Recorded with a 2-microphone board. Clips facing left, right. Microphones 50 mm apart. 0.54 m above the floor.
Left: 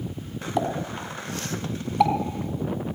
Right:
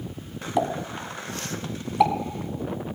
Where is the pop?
5° right (ahead or behind), 2.5 m.